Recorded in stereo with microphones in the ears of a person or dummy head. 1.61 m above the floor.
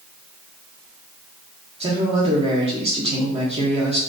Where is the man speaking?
30° right (ahead or behind), 0.6 m.